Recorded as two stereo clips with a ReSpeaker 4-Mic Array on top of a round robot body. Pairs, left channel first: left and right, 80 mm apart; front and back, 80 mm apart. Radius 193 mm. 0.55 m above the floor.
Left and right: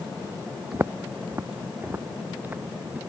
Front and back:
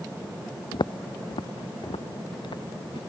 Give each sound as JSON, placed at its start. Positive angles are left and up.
{"t": 0.7, "sound": "footsteps", "azimuth_deg": -25}